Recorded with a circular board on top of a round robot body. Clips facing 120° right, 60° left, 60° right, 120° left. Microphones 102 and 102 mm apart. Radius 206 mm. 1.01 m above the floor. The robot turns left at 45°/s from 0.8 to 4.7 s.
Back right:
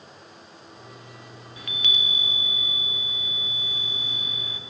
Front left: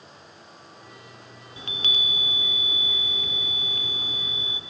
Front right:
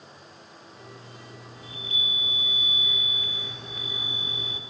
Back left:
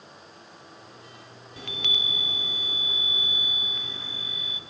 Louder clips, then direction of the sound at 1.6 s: Even, back left 4 dB; 130° left.